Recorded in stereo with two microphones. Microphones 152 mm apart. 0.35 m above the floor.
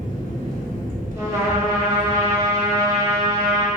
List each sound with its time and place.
0.0 s an engine running: 65° right (ahead or behind), 0.7 m
1.2 s a trumpet: 20° right (ahead or behind), 0.5 m